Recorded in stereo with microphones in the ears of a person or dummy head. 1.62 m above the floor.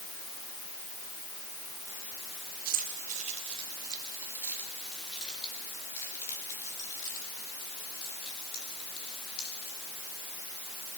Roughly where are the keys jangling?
Right.